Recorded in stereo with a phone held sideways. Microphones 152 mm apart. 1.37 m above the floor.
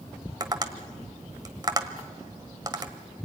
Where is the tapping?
30° right (ahead or behind), 1.4 m.